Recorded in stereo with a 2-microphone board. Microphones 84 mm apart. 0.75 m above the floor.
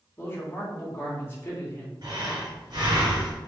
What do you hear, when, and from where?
0.2 s a man speaking: 25° left (ahead or behind), 1.2 m
2.0 s breathing: 60° right (ahead or behind), 1.9 m